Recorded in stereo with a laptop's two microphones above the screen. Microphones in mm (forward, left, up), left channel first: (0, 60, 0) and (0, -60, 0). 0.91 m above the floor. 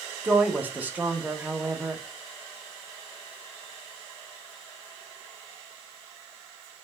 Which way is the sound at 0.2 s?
15° right (ahead or behind).